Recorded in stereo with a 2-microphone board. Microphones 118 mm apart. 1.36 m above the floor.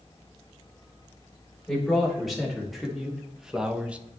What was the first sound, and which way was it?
A man speaking, centre (ahead or behind).